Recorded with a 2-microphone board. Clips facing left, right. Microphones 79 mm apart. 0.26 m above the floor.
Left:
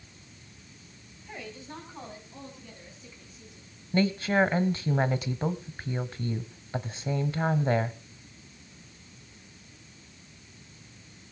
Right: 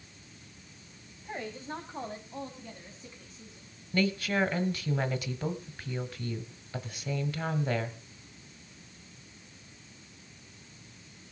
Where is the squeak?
No squeak in this recording.